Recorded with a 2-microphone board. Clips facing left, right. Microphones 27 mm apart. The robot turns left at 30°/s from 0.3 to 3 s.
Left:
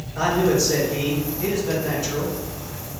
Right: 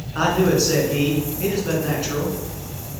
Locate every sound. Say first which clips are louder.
0.1 s a man speaking: right 1 dB; 105° right, 3.5 m; by 2.4 s 165° right, 3.5 m